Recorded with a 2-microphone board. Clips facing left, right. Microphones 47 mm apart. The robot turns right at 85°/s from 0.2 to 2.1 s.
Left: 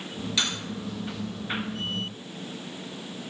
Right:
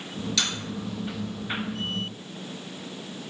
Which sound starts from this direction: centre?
Cutlery clinking, at 0.4 s.